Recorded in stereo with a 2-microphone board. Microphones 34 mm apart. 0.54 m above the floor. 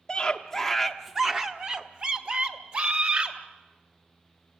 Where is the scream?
20° left (ahead or behind), 0.9 m; by 3.4 s 50° right (ahead or behind), 1.8 m.